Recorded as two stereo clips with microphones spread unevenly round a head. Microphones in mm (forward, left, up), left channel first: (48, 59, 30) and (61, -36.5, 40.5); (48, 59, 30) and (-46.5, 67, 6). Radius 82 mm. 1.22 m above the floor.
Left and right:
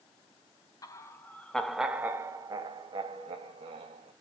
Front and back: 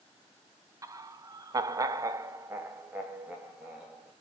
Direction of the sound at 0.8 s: 140° left.